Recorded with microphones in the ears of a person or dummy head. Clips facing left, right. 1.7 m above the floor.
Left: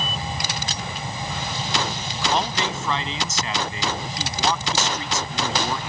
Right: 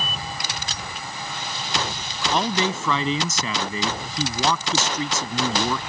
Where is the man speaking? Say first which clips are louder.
Right 3 dB; 80° right.